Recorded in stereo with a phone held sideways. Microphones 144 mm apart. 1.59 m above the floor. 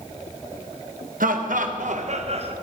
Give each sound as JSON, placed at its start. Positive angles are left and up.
{"t": 1.2, "sound": "laughter", "side_deg": -70, "distance_m": 1.3}